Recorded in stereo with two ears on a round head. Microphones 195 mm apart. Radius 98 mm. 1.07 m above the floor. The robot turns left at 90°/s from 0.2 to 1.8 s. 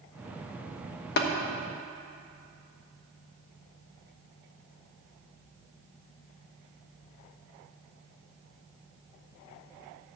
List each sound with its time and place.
1.2 s tapping: 50° left (ahead or behind), 1.1 m; by 1.3 s 60° left (ahead or behind), 1.1 m